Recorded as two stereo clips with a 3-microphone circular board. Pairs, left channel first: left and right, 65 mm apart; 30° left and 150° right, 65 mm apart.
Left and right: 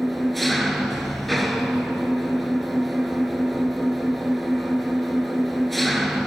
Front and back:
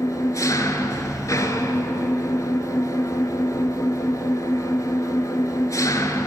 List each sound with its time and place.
0.0 s an engine running: straight ahead, 0.9 m